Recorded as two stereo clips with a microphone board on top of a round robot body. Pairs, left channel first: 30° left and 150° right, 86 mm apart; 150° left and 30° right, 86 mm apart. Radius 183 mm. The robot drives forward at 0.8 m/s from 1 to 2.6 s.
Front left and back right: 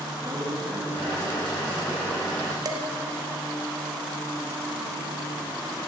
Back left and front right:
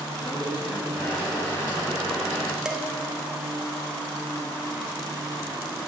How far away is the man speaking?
About 5 m.